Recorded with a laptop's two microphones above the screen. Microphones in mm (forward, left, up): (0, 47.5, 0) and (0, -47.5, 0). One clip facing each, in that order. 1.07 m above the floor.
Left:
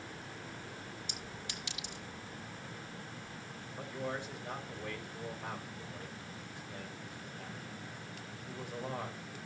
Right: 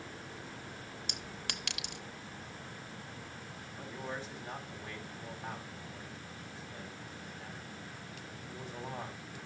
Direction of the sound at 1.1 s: 70° right (ahead or behind).